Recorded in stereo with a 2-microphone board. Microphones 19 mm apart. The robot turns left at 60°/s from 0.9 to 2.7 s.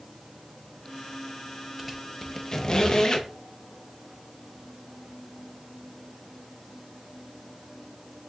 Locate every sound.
1.8 s a squeak: 15° right (ahead or behind), 0.5 m; by 3.3 s 35° left (ahead or behind), 0.5 m